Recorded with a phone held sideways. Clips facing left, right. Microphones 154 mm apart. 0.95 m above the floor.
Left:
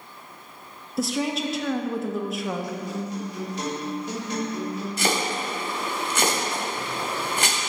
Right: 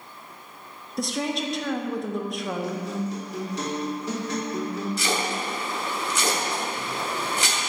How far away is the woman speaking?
About 0.7 m.